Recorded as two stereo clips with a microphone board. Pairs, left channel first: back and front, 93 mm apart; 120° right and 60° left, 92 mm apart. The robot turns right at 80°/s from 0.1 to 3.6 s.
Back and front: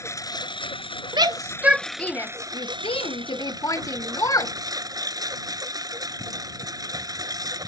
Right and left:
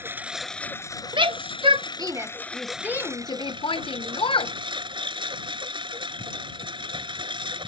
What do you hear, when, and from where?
0.0 s a lawn mower: 125° left; by 7.7 s 45° left
1.1 s a shout: 30° left; by 4.5 s 130° right